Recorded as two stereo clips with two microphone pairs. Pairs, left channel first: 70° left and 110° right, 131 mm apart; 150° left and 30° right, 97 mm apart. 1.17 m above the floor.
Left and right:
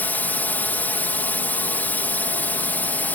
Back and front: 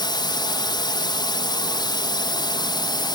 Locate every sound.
0.0 s a drone: 140° left